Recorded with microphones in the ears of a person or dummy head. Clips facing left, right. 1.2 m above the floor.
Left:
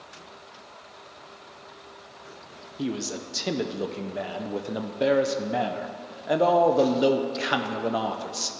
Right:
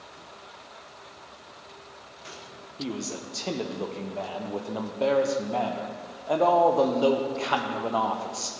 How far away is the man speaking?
About 0.5 m.